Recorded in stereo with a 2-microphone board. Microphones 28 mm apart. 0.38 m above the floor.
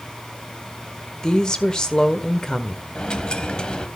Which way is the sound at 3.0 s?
30° left (ahead or behind).